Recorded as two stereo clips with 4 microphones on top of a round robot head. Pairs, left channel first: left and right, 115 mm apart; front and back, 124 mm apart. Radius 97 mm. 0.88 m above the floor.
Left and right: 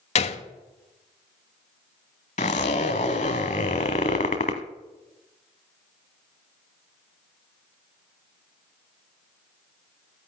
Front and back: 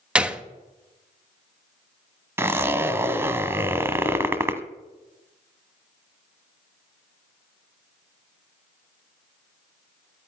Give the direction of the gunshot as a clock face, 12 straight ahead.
9 o'clock.